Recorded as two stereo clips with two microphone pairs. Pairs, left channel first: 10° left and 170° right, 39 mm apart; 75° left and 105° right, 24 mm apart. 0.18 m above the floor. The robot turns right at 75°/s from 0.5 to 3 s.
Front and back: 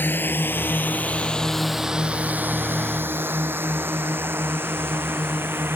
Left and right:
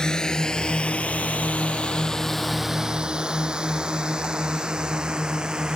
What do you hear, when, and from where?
0.0 s a drone: 20° left; by 5.8 s 160° right